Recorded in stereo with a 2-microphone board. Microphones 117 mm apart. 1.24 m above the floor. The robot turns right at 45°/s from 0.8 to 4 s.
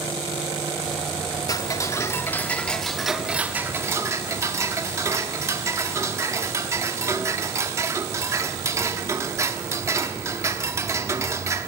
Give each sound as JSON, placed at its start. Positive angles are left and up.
{"t": 1.5, "sound": "ticking", "azimuth_deg": 115, "distance_m": 0.8}